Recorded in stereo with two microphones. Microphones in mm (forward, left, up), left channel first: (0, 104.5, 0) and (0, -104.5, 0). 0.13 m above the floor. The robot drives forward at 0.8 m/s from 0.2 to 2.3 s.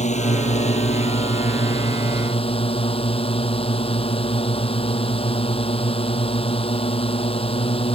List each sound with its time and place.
0.0 s a drone: 35° left (ahead or behind); by 7.9 s 25° left (ahead or behind)